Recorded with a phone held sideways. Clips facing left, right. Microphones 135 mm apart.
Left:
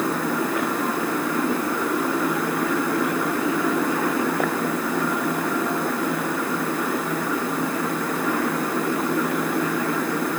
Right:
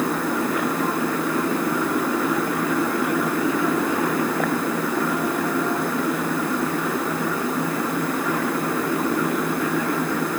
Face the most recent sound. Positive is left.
No sound to turn to.